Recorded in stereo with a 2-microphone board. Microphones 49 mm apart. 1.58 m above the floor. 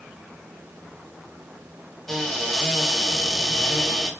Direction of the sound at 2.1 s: Centre (ahead or behind).